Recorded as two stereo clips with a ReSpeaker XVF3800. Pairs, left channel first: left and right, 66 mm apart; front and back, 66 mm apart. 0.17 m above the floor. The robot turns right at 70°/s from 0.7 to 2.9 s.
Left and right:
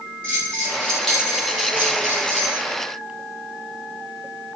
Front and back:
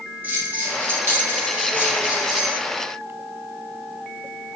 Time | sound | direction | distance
0.2 | a bell | 150° left | 1.8 m